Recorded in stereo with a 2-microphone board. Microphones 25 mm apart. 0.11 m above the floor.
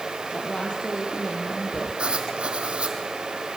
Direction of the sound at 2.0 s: 45° right (ahead or behind).